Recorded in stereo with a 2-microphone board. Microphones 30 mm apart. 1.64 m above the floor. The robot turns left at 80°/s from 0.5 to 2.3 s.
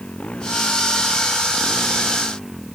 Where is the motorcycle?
145° left; by 2.8 s straight ahead.